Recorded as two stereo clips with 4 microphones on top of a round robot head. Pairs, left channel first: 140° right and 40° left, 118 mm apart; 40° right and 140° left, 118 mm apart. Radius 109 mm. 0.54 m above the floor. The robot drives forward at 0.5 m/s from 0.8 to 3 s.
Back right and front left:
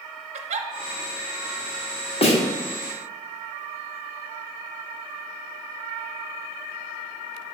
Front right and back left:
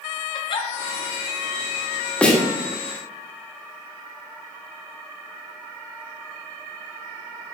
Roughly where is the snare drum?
Behind right.